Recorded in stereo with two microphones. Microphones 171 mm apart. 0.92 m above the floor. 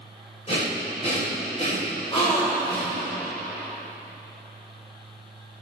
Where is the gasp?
35° left (ahead or behind), 3 m.